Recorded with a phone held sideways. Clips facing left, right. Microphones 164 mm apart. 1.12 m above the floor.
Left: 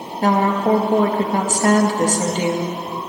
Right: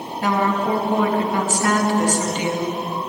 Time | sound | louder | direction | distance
0.2 | a woman speaking | left 3 dB | 40° left (ahead or behind) | 1.7 m